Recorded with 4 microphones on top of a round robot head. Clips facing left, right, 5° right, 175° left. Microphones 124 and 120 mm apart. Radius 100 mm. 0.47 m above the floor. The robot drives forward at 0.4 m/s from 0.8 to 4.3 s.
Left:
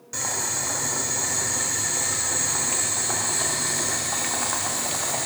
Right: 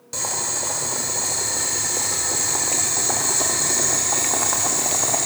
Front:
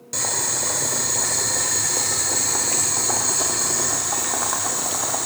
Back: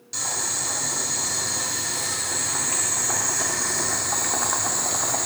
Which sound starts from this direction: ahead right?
Boiling, at 0.1 s.